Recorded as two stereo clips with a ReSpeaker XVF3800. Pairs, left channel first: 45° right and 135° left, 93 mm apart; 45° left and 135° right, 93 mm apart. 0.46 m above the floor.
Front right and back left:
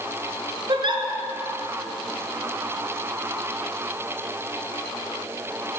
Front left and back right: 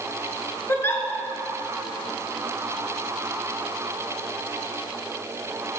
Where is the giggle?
110° left, 0.9 m.